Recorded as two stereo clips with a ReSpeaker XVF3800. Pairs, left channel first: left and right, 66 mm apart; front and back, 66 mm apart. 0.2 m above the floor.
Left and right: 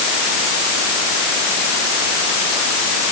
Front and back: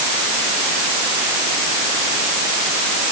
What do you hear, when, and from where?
Only background noise.